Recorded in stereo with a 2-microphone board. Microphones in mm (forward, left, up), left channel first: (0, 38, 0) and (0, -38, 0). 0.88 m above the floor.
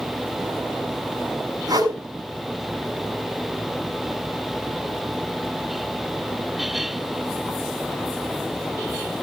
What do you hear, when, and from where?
1.7 s a whoosh: 55° right (ahead or behind), 6 m